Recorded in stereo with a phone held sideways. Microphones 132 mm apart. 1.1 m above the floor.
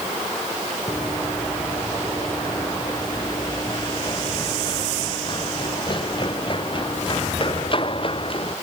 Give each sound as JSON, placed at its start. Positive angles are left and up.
{"t": 0.9, "sound": "running footsteps", "side_deg": 25}